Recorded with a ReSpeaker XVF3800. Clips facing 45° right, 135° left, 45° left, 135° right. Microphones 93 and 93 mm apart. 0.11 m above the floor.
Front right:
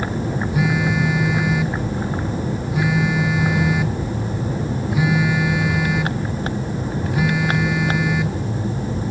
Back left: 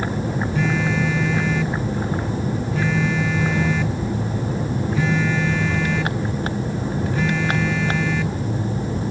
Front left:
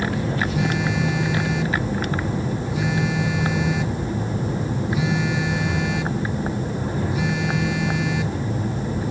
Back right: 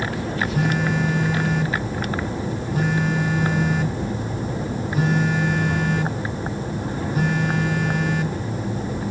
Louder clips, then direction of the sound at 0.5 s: Front right 2 dB, back right 1 dB; 120° right.